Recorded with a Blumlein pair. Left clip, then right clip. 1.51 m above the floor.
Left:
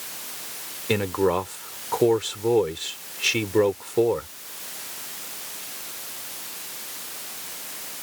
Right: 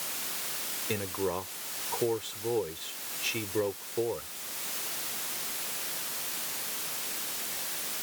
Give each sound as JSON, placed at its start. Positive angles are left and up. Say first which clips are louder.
{"t": 0.9, "sound": "a man speaking", "louder": "left 11 dB", "azimuth_deg": 30}